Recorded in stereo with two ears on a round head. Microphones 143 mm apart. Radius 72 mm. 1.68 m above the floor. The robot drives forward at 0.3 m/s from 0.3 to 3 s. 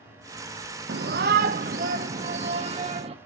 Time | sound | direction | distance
0.9 | a shout | 75° right (ahead or behind) | 0.6 m